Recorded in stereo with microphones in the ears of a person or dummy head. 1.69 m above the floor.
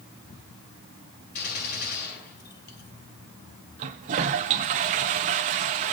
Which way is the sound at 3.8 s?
35° right (ahead or behind).